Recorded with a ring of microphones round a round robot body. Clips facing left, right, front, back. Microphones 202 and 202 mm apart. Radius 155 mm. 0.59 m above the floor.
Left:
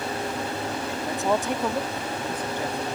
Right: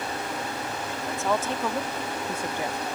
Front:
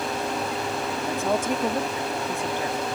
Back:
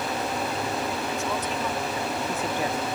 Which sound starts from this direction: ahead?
A woman speaking, at 1.0 s.